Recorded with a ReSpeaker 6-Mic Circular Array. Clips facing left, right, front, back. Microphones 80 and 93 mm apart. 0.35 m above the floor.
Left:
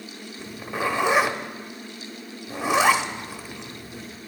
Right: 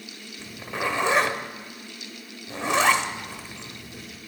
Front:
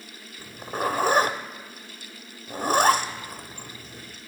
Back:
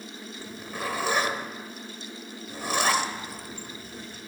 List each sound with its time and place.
0.4 s a zipper: 10° left, 0.6 m